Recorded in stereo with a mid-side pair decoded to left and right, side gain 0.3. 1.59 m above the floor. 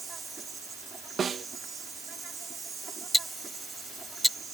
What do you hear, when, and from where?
0.0 s an insect: 60° right
1.2 s a snare drum: 65° right
3.1 s ticking: straight ahead